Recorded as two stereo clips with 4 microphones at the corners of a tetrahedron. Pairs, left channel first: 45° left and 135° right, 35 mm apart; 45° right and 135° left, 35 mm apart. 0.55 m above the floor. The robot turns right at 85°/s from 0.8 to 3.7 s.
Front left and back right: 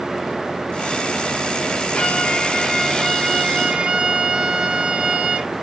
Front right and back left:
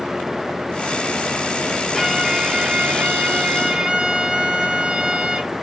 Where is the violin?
30° left, 1.4 m; by 5.5 s straight behind, 1.4 m.